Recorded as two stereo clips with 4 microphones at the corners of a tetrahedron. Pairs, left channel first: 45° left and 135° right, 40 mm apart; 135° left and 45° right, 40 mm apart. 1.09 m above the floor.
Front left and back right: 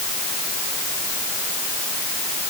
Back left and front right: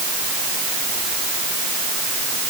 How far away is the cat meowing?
No cat meowing in this recording.